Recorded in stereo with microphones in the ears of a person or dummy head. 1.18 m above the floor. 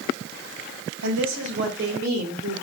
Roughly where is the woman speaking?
Right.